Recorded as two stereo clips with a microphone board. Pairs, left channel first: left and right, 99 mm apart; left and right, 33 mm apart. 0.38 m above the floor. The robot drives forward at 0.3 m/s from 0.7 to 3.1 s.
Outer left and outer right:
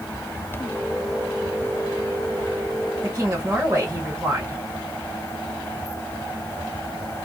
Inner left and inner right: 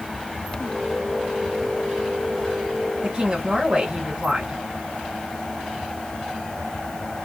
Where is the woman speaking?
25° right (ahead or behind), 1.5 m.